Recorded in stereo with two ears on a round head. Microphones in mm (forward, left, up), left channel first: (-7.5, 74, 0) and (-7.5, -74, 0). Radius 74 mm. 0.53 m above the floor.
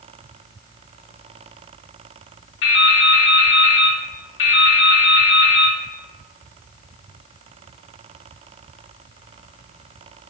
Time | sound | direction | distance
2.6 | dripping | 75° left (ahead or behind) | 0.8 m